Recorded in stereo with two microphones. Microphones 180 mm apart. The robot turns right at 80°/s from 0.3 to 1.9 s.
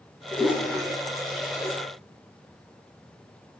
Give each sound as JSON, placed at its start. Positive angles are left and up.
{"t": 0.3, "sound": "a toilet flushing", "side_deg": 5, "distance_m": 1.4}